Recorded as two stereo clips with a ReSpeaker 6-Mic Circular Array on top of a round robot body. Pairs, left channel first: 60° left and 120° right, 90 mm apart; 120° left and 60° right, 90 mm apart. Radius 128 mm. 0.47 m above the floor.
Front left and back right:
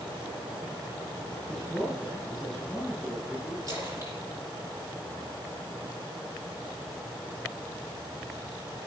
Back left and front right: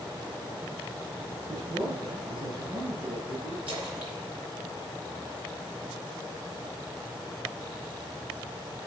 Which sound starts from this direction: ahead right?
A man speaking, at 1.5 s.